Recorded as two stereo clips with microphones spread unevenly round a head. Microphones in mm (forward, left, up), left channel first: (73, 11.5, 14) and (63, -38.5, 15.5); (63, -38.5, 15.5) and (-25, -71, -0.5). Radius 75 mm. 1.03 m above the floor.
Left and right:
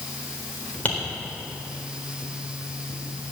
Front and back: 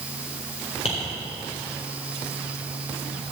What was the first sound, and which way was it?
Tapping, 20° left.